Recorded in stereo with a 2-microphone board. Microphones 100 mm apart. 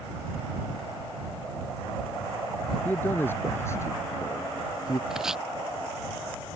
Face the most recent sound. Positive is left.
turn(degrees=-5)  # may be behind; listen again after turning